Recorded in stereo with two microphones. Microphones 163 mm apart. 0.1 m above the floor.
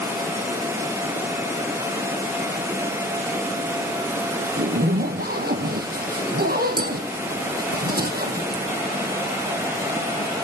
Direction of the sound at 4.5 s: 75° right (ahead or behind).